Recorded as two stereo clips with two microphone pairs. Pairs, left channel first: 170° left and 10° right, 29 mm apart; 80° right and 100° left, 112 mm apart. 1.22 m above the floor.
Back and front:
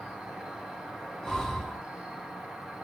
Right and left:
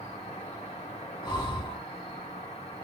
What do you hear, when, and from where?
0.0 s an insect: 70° right, 1.3 m
1.2 s breathing: 115° right, 0.9 m